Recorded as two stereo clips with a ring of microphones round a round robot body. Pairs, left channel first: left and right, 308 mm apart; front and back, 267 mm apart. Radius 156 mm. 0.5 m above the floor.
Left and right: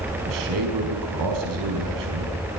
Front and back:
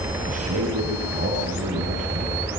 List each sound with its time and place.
0.3 s a man speaking: 115° right, 5 m